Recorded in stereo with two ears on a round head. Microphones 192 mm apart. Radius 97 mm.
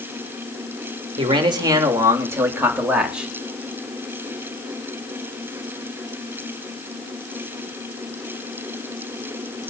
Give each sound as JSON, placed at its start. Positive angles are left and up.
{"t": 1.2, "sound": "a man speaking", "side_deg": -25, "distance_m": 3.0}